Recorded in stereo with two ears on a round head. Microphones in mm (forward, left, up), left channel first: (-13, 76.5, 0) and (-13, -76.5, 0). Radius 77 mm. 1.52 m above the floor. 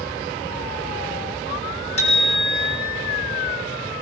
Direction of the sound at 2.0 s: 40° left (ahead or behind).